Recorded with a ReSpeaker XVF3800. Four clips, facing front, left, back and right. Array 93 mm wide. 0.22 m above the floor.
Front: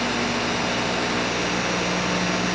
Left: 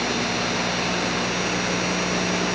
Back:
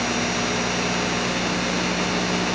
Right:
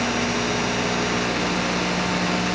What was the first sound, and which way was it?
Only background noise.